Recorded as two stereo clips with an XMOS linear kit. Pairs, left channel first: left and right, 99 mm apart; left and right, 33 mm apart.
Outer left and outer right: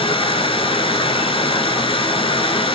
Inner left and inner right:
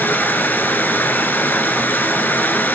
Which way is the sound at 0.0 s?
65° left (ahead or behind).